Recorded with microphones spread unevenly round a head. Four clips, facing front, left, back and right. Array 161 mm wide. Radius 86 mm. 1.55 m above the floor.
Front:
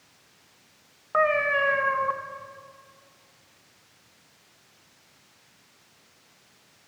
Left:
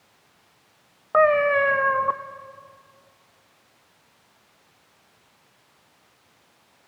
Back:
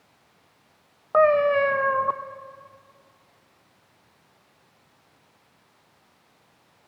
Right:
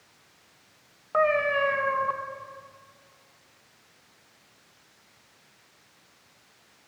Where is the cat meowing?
135° left, 0.8 m.